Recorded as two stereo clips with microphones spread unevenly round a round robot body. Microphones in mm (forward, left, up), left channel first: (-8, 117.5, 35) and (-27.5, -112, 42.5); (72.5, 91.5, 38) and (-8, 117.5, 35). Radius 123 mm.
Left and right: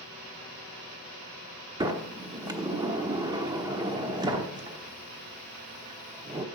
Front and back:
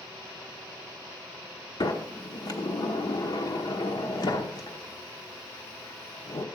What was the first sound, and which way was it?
A sliding door, 25° right.